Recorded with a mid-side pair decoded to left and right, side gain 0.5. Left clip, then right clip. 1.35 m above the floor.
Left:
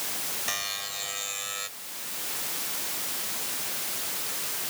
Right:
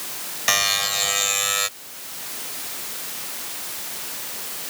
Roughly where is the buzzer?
Ahead right.